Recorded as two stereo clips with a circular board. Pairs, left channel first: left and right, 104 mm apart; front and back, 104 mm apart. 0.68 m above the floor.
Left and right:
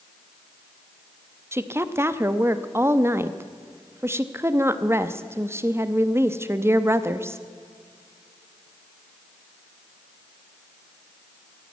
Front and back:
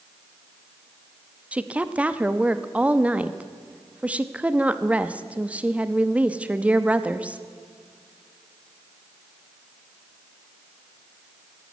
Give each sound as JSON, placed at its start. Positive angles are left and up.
{"t": 1.5, "sound": "a woman speaking", "azimuth_deg": -120, "distance_m": 0.7}